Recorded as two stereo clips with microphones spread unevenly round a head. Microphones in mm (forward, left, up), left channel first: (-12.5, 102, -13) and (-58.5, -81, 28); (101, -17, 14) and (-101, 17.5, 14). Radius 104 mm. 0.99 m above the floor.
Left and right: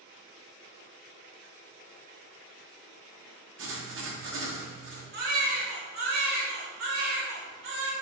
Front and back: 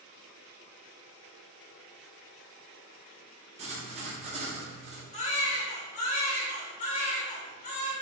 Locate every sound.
3.6 s writing: 125° right, 1.2 m
5.1 s a baby crying: 65° right, 1.0 m